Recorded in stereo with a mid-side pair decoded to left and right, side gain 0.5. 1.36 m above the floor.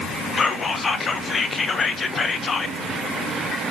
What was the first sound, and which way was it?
Whispering, 35° left.